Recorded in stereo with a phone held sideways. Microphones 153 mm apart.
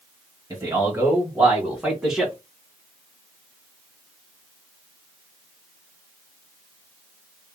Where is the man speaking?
25° right (ahead or behind), 1.9 m; by 2.3 s centre (ahead or behind), 1.2 m.